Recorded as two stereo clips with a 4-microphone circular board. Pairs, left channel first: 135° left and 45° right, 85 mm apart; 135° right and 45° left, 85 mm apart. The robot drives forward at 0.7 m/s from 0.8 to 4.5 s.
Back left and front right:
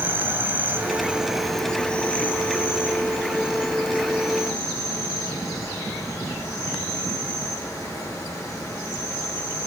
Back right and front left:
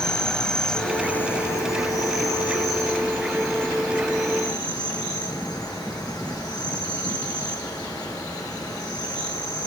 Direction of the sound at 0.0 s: 65° right.